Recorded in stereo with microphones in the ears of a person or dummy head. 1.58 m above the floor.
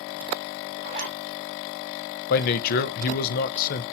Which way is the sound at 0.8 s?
45° right (ahead or behind).